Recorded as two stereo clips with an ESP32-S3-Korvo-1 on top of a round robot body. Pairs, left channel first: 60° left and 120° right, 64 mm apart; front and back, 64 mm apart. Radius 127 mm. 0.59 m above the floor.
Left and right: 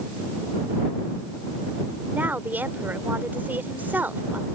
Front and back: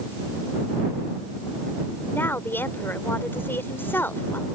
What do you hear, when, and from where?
2.1 s a woman speaking: 55° right